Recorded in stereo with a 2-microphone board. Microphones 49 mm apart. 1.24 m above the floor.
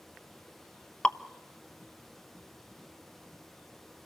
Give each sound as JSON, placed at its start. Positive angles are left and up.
{"t": 1.0, "sound": "dripping", "side_deg": 25, "distance_m": 0.7}